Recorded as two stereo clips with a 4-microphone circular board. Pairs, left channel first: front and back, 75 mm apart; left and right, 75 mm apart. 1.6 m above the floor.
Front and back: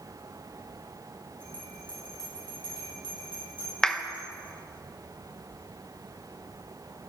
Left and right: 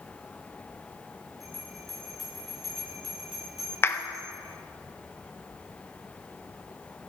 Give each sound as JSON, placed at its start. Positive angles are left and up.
{"t": 1.4, "sound": "a bell", "azimuth_deg": 0, "distance_m": 6.5}
{"t": 3.8, "sound": "a clap", "azimuth_deg": 75, "distance_m": 0.8}